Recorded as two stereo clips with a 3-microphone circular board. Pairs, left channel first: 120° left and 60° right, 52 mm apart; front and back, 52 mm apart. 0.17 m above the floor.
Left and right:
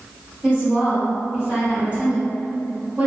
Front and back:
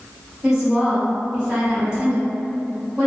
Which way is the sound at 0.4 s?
115° right.